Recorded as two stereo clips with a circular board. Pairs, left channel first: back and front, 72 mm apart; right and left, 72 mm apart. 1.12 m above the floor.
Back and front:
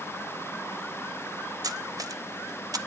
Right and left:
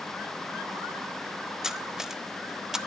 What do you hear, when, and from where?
1.6 s cutlery clinking: 10° left, 0.7 m